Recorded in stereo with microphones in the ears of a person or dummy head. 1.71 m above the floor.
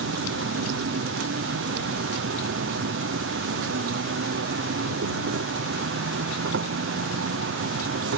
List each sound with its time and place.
0.0 s an insect: 60° right (ahead or behind)